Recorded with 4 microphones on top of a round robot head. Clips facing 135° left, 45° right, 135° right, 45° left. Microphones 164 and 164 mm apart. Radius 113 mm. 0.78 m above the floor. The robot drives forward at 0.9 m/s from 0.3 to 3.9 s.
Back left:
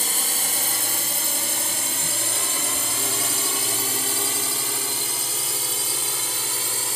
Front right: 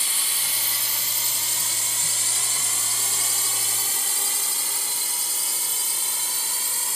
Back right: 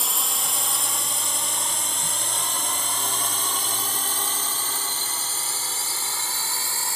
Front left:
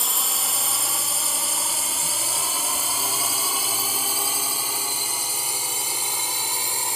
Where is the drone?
135° left; by 7.0 s 120° left.